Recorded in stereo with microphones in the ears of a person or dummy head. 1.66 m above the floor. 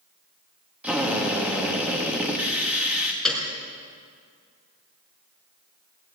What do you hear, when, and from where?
0.8 s a drill: 10° right (ahead or behind), 2.5 m
3.2 s a piano: 5° left (ahead or behind), 4 m